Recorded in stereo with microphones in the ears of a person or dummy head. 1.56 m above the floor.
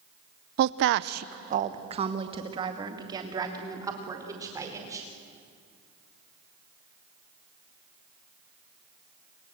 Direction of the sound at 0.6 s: 55° right (ahead or behind).